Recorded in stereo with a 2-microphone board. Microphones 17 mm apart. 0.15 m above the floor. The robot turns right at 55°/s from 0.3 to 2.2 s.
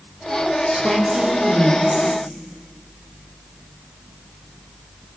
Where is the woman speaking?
125° right, 7.5 m; by 2.2 s 45° right, 7.5 m.